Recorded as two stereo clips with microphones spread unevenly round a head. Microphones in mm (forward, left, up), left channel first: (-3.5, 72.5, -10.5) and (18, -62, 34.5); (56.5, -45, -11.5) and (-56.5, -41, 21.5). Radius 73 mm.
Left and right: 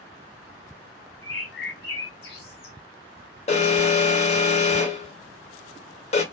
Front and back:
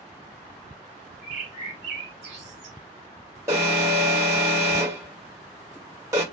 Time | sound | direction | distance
1.2 | a bird | 110° left | 2 m
3.5 | an alarm | 105° left | 1.4 m